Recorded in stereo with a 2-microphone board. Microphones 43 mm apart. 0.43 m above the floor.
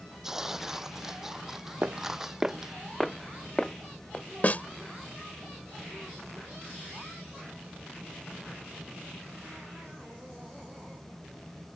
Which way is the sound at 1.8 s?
45° right (ahead or behind).